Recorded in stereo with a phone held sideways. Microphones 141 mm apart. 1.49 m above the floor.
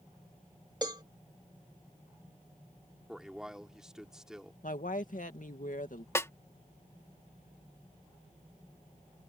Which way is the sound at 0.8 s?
30° right (ahead or behind).